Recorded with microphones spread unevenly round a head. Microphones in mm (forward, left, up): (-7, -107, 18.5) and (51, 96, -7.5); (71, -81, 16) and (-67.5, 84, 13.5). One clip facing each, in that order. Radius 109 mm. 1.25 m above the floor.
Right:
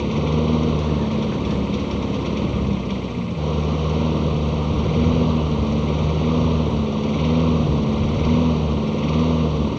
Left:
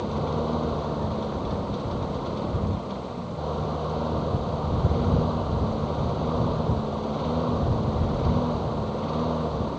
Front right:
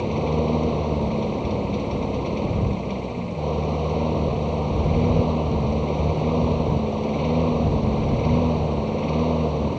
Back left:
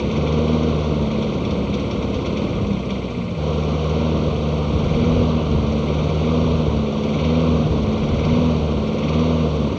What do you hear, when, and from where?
0.0 s a lawn mower: 160° right